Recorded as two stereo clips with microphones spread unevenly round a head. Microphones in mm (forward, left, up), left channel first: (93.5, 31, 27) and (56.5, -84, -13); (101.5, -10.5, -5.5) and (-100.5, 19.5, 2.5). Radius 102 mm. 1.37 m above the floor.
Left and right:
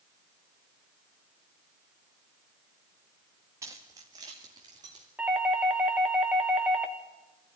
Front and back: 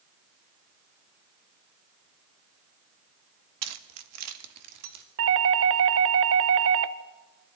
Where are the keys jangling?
170° left, 1.3 m; by 5.0 s straight behind, 3 m.